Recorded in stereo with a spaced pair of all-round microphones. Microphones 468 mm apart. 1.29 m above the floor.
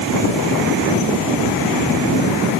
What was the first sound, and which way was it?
Only background noise.